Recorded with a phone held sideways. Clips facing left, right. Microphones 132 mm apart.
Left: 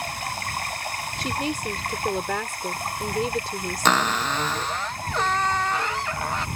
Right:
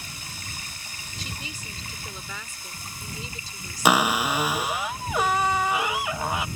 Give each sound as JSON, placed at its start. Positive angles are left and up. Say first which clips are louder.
{"t": 0.0, "sound": "running water", "louder": "left 12 dB", "side_deg": 65}
{"t": 1.2, "sound": "a woman speaking", "louder": "left 12 dB", "side_deg": 65}
{"t": 3.9, "sound": "a cupboard door", "louder": "right 2 dB", "side_deg": -10}